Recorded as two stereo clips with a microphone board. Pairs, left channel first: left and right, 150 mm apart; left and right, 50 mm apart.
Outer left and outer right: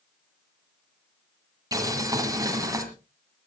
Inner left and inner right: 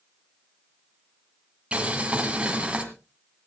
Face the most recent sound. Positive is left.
turn(degrees=-25)  # may be behind; listen again after turning